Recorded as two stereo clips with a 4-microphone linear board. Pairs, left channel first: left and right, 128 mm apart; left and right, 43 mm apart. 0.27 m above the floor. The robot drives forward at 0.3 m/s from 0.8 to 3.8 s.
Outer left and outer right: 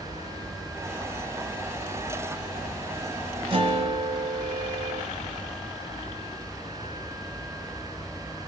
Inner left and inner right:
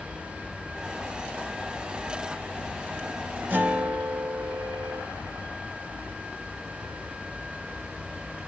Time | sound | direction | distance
3.5 | a guitar | 40° right (ahead or behind) | 1.0 m